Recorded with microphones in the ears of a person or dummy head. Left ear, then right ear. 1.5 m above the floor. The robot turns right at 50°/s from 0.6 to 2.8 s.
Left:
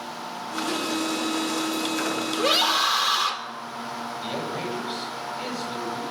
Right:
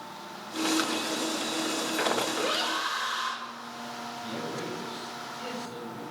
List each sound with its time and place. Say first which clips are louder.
2.3 s a scream: left 7 dB; 25° left (ahead or behind), 4 m; by 3.4 s 50° left (ahead or behind), 4 m
4.2 s a man speaking: left 5 dB; 50° left (ahead or behind), 9.5 m